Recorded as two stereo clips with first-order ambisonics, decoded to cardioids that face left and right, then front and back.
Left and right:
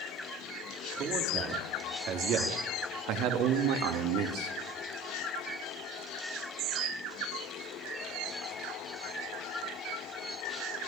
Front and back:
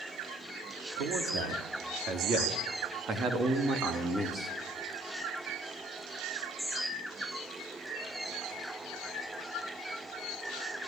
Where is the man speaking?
145° right, 3.5 m; by 4.5 s 95° right, 2 m.